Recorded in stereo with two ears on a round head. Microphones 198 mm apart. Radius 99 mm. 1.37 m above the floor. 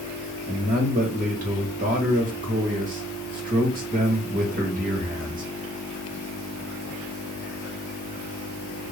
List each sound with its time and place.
0.5 s a man speaking: 40° right (ahead or behind), 1.2 m